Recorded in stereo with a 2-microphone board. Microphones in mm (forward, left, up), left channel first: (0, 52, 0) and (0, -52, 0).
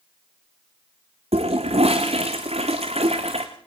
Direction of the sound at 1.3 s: 75° right (ahead or behind).